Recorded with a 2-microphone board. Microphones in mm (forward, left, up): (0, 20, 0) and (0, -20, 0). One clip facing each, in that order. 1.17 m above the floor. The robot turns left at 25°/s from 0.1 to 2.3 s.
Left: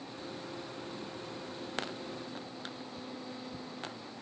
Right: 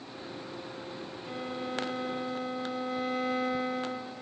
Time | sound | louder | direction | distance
1.3 | a violin | right 7 dB | 70° right (ahead or behind) | ?